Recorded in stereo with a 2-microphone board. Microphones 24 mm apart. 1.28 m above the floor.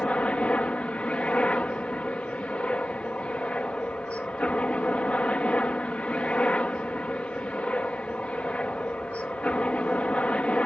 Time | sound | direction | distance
0.0 | a helicopter | 60° left (ahead or behind) | ?